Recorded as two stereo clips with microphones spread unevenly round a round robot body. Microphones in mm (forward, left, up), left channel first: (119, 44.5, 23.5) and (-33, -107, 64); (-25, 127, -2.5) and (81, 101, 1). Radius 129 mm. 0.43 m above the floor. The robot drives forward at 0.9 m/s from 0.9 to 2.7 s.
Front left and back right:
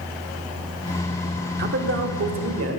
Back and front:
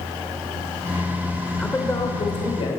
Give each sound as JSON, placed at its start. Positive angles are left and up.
{"t": 1.6, "sound": "a man speaking", "azimuth_deg": -115, "distance_m": 0.9}